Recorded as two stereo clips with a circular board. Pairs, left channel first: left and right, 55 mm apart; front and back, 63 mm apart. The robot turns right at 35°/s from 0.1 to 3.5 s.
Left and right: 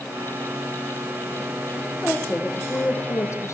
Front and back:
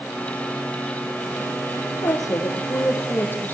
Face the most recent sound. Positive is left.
turn(degrees=65)